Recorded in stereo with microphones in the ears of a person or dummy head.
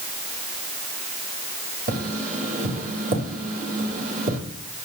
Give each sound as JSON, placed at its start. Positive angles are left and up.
{"t": 1.9, "sound": "tapping", "side_deg": -45, "distance_m": 2.5}